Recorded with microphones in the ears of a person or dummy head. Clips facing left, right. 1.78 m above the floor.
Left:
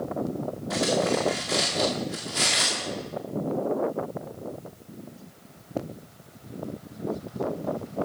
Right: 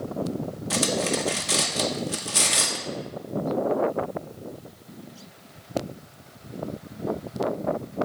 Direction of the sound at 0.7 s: 45° right (ahead or behind).